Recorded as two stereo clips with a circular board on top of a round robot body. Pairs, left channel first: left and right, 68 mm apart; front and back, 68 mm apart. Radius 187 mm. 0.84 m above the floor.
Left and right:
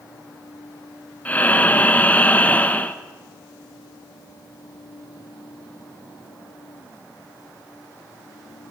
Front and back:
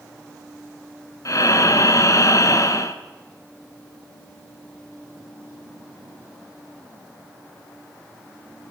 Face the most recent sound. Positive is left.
turn(degrees=25)